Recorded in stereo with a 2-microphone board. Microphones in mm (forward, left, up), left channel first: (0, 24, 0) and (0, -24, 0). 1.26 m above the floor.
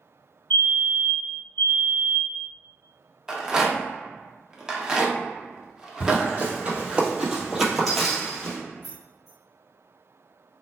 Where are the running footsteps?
40° right (ahead or behind), 1.6 m; by 8.6 s 15° left (ahead or behind), 1.3 m.